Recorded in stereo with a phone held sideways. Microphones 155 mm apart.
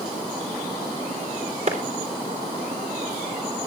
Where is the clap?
45° right (ahead or behind), 3.5 m.